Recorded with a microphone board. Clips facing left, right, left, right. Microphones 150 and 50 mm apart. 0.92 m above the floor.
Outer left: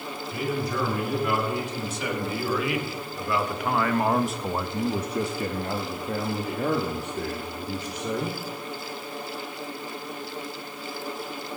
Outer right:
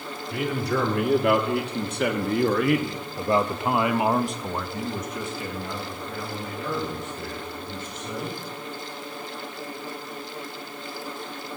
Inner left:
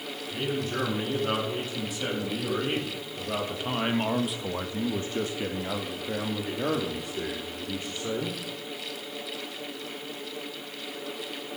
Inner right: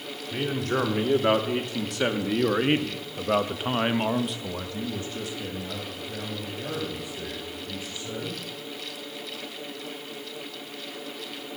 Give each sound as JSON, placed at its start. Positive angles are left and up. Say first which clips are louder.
{"t": 0.3, "sound": "a man speaking", "louder": "outer right 3 dB, inner right 4 dB", "side_deg": -75, "distance_m": 2.0}